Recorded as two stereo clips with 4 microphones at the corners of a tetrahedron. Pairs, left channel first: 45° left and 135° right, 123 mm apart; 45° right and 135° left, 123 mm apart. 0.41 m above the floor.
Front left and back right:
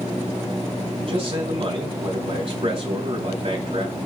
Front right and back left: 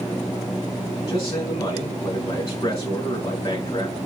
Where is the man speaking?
105° right, 3.5 m.